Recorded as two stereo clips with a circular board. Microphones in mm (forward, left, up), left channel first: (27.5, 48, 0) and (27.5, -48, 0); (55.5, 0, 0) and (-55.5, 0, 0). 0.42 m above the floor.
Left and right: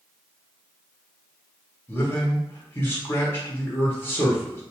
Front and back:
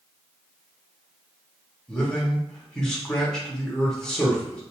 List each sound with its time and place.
1.9 s a man speaking: 75° left, 0.8 m